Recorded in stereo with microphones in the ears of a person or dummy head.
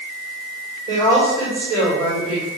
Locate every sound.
0.9 s a woman speaking: 55° right (ahead or behind), 4.5 m